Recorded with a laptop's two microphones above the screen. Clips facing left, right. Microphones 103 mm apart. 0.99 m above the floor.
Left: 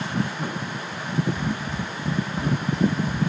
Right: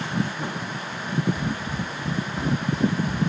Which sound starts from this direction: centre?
Running footsteps, at 1.4 s.